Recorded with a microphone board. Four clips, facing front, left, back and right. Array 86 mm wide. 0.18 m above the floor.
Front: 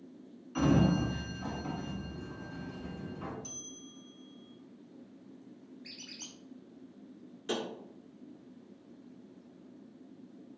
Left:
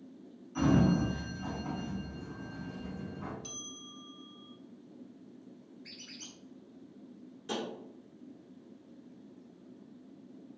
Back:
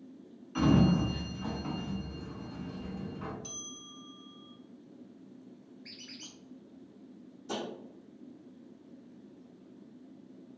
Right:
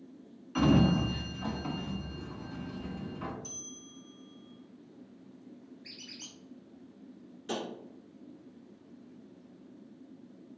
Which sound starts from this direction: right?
A sliding door, at 0.6 s.